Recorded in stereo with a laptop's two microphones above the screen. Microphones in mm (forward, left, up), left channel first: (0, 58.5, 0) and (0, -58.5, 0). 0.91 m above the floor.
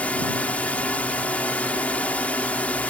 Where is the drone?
10° left (ahead or behind).